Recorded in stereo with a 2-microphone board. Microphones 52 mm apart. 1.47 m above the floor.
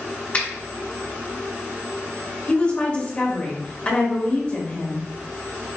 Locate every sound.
0.3 s a finger snap: 30° left (ahead or behind), 1.4 m
2.5 s a woman speaking: 25° left (ahead or behind), 1.0 m